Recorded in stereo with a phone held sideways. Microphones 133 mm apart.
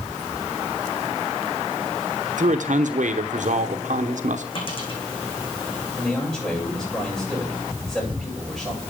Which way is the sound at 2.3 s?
70° right (ahead or behind).